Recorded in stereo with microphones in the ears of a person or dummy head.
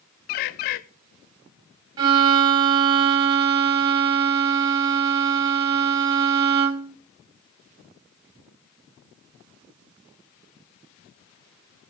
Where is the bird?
50° left (ahead or behind), 0.5 m.